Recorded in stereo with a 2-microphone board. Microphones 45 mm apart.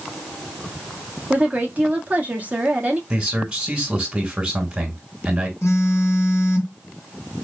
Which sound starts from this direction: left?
A phone buzzing, at 5.6 s.